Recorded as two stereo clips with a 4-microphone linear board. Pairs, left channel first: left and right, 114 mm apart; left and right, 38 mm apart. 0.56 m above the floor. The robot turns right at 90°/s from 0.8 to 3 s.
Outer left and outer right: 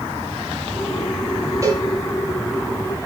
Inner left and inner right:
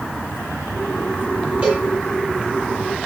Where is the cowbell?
25° right (ahead or behind), 8 m; by 1.9 s 50° right (ahead or behind), 8 m.